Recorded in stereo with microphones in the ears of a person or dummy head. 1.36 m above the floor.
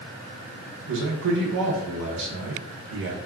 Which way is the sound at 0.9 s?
60° right (ahead or behind).